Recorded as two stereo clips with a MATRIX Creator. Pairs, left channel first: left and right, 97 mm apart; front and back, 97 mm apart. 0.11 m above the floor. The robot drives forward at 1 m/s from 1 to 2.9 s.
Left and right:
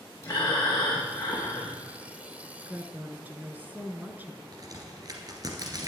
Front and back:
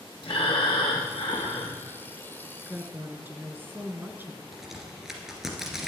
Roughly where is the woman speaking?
Right.